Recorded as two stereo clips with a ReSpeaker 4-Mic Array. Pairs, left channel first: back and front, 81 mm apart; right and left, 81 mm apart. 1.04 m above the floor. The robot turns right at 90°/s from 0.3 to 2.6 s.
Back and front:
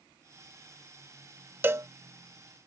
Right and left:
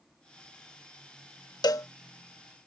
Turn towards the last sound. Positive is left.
turn(degrees=25)